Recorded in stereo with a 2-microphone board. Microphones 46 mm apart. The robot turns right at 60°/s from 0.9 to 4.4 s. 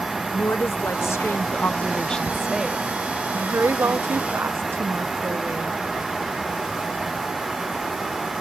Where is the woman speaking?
85° left; by 5.7 s 65° right.